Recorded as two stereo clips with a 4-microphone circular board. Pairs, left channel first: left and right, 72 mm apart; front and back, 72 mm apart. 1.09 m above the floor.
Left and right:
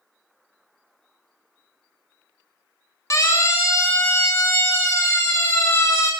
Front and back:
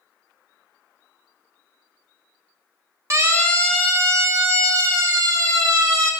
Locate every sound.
3.1 s a siren: 130° left, 2.5 m; by 6.1 s 145° left, 4.5 m